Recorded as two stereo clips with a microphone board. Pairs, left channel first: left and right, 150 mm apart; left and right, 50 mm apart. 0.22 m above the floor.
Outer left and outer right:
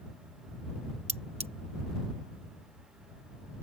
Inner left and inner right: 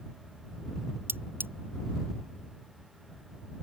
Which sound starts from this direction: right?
Cutlery clinking, at 1.1 s.